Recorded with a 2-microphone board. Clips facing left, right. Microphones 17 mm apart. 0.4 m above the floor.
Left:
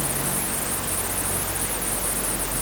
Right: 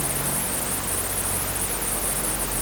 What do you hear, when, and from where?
Only background noise.